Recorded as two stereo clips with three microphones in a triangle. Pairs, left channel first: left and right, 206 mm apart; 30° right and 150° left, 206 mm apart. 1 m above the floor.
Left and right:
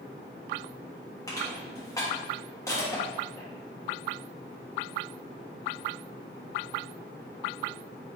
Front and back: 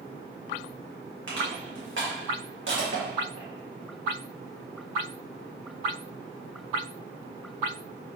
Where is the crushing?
165° left, 1.5 m.